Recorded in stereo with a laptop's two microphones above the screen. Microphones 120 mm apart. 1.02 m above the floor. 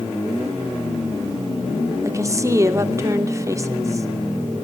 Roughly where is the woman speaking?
Right.